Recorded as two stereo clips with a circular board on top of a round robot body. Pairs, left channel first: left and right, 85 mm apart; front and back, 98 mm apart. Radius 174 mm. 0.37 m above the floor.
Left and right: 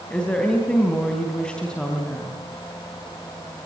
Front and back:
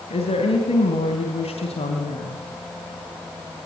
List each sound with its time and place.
0.1 s a woman speaking: 10° left, 4 m